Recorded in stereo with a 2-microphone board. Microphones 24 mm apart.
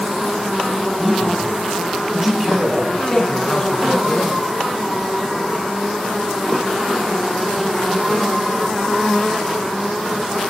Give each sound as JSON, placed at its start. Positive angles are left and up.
{"t": 1.0, "sound": "a man speaking", "side_deg": -20, "distance_m": 6.5}
{"t": 2.9, "sound": "a man speaking", "side_deg": 20, "distance_m": 3.5}